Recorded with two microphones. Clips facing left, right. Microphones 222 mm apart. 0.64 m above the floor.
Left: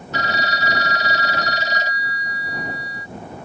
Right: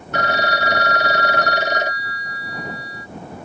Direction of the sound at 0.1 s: 60° right (ahead or behind).